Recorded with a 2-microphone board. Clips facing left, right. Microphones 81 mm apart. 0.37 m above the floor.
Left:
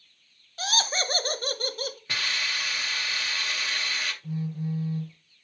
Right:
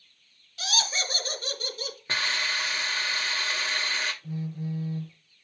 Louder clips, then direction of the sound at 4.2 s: Left 2 dB; 10° left (ahead or behind).